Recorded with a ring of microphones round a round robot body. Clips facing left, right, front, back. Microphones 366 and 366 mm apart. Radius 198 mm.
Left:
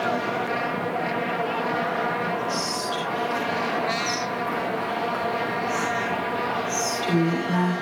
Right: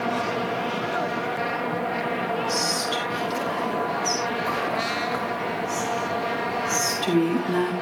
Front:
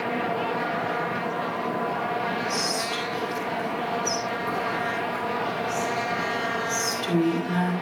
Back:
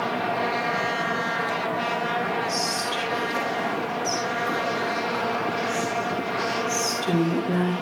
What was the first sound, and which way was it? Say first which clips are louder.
Whispering: right 1 dB, even; 125° right.